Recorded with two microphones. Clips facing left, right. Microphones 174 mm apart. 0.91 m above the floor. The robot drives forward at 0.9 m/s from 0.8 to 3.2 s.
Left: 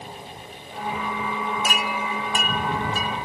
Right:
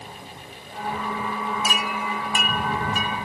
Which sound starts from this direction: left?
A chime, at 1.6 s.